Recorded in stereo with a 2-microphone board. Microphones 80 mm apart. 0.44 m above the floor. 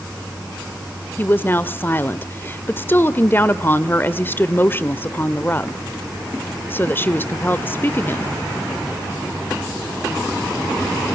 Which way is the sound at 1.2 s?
25° left (ahead or behind).